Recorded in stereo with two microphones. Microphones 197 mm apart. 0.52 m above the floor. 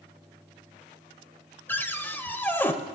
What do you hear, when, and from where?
1.7 s a cupboard door: 10° left (ahead or behind), 0.7 m